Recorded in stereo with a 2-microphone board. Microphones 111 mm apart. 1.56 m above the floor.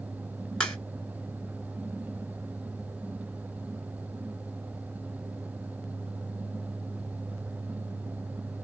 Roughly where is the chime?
I don't hear a chime.